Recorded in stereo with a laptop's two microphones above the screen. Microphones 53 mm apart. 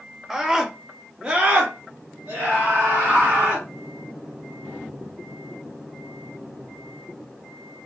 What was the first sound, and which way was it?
A scream, 5° right (ahead or behind).